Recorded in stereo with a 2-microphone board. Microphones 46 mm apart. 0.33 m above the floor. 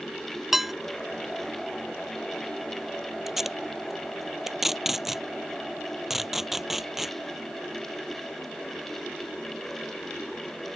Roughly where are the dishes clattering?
Centre.